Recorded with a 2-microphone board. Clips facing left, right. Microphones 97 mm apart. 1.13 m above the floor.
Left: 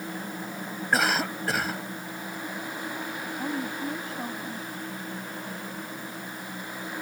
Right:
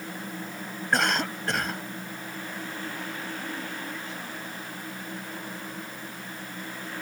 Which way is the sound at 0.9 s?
Centre (ahead or behind).